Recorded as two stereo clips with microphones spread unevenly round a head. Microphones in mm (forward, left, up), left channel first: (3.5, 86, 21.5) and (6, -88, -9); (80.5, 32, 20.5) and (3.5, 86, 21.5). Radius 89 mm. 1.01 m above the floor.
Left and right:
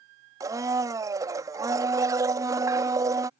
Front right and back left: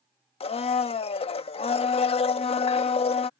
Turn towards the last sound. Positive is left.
turn(degrees=-15)